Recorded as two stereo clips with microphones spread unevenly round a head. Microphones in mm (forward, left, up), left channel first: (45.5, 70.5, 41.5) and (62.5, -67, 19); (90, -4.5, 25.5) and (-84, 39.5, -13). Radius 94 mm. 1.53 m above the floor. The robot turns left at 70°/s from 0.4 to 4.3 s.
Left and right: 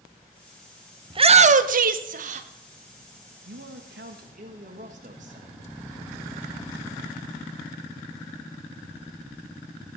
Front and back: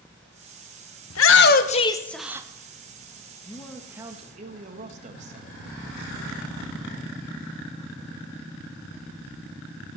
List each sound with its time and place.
1.1 s a shout: 30° right, 1.0 m; by 2.5 s 125° right, 1.0 m
3.5 s a man speaking: 75° right, 1.6 m; by 5.6 s 135° right, 1.6 m